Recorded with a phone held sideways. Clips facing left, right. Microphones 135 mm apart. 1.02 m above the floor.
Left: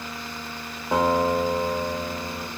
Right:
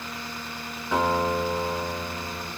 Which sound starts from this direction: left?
A guitar, at 0.9 s.